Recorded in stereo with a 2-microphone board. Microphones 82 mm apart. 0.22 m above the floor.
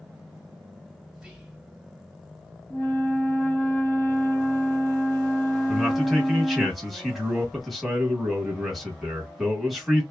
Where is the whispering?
10° right (ahead or behind), 1.3 m.